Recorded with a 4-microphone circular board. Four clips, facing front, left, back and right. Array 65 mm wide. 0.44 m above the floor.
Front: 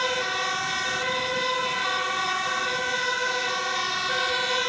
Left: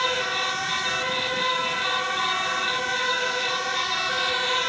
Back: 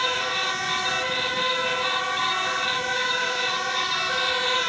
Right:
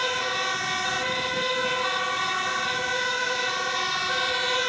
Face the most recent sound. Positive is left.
No sound to turn to.